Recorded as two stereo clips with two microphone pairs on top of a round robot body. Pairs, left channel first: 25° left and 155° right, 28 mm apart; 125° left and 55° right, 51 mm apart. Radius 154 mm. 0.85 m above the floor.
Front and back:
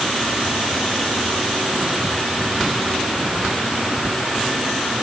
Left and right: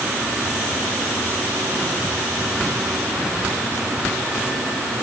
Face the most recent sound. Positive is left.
No sound to turn to.